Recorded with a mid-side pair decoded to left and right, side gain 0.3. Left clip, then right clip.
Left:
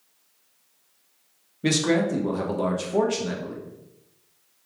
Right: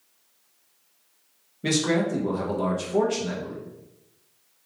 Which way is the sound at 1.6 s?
25° left.